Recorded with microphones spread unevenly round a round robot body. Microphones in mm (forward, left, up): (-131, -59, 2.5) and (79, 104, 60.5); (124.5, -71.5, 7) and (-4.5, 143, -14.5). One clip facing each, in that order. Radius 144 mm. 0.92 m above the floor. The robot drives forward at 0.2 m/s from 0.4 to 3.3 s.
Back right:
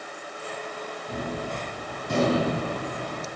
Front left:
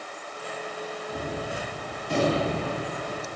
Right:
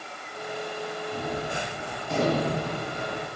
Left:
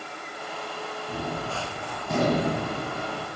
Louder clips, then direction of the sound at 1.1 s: Back right 2 dB, left 1 dB; 175° left.